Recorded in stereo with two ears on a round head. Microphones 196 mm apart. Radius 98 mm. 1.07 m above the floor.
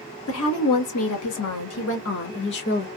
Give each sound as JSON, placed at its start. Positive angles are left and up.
{"t": 0.3, "sound": "a woman speaking", "side_deg": 70, "distance_m": 1.7}